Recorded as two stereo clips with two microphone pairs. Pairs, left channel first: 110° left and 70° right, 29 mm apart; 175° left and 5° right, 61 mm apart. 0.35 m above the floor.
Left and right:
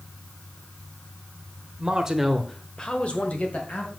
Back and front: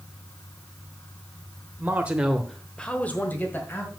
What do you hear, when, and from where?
1.8 s a man speaking: 40° right, 1.1 m; by 3.9 s 125° left, 2 m